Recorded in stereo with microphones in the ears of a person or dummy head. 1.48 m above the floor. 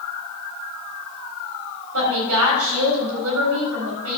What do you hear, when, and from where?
1.9 s a woman speaking: 80° right, 4 m